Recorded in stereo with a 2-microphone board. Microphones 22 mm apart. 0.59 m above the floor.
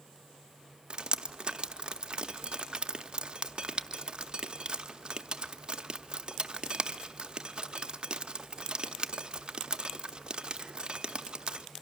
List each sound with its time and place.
0.9 s dripping: 45° right (ahead or behind), 0.6 m